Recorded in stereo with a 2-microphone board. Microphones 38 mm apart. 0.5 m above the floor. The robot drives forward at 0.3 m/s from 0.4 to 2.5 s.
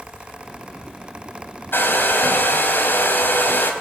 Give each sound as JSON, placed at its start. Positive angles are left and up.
{"t": 1.7, "sound": "a hair dryer", "side_deg": 65, "distance_m": 3.5}